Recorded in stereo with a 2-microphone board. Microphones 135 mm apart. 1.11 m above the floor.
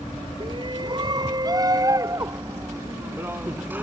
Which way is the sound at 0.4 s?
40° right (ahead or behind).